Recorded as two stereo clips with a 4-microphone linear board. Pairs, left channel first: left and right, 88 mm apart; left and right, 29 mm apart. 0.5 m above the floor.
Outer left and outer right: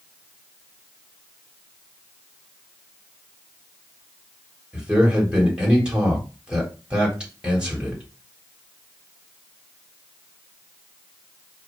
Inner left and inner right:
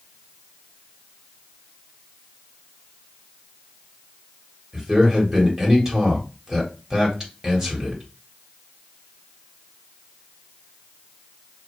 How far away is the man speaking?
About 1.6 m.